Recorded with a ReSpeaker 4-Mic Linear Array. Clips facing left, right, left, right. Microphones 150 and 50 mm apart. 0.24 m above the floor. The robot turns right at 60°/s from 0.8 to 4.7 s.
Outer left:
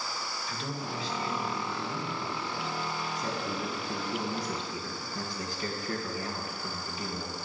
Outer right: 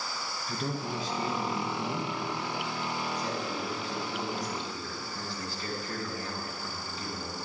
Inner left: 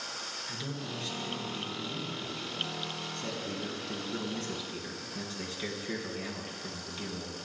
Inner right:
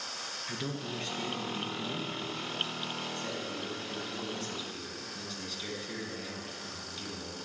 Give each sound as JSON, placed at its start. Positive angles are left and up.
{"t": 0.5, "sound": "a man speaking", "azimuth_deg": -75, "distance_m": 3.0}